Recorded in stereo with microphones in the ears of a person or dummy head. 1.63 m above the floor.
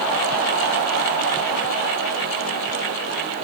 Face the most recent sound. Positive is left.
No sound to turn to.